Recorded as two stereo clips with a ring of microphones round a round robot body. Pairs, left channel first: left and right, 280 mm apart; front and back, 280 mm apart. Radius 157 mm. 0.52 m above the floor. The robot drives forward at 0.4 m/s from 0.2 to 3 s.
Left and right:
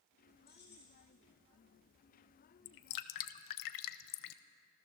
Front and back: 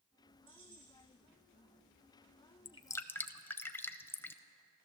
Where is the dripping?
70° left, 0.6 m; by 4.4 s 80° left, 0.6 m.